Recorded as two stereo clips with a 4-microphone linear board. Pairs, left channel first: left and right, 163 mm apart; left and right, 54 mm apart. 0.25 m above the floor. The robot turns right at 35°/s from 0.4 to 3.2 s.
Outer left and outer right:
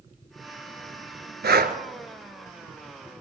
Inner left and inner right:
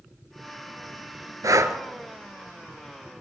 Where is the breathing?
70° right (ahead or behind), 0.9 m; by 1.8 s 60° right (ahead or behind), 0.9 m.